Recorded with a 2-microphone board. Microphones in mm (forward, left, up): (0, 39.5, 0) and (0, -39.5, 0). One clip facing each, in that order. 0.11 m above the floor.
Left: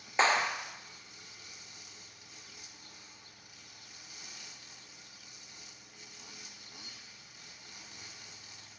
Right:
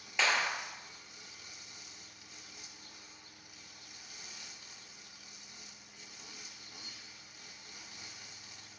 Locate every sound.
0.2 s a clap: 35° left (ahead or behind), 2.0 m